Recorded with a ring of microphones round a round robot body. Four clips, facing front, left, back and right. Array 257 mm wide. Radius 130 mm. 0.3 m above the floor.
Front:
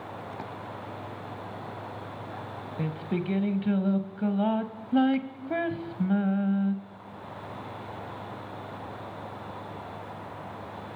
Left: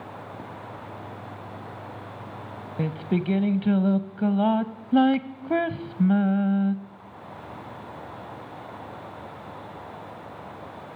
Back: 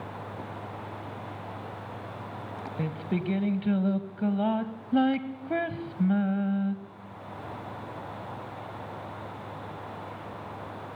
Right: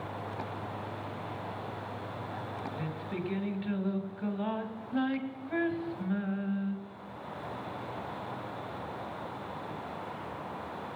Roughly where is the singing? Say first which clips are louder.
Left 14 dB, even; left.